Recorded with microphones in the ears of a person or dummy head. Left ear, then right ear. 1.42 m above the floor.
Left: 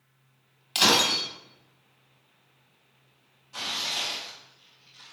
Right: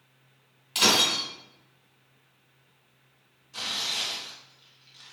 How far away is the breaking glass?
About 1.8 m.